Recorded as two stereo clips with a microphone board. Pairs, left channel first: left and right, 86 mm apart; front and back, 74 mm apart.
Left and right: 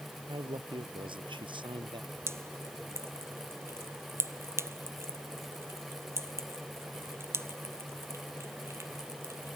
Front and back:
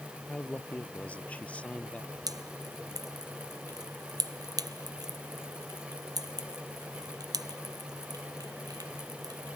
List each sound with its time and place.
0.3 s a man speaking: 70° right; by 2.2 s 75° right
2.3 s dripping: 150° right